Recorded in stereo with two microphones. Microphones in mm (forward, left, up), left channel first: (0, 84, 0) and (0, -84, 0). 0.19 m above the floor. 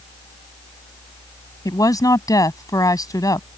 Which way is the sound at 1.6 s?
25° left (ahead or behind).